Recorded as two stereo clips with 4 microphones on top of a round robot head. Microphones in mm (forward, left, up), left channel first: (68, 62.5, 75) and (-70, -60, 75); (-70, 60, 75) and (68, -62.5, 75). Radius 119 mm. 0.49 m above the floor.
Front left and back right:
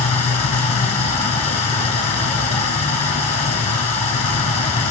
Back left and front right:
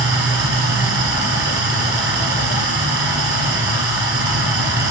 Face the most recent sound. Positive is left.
turn(degrees=-15)